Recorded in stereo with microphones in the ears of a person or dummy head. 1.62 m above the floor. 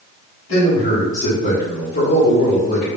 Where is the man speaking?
35° left (ahead or behind), 1.2 m; by 2.9 s 65° left (ahead or behind), 1.3 m.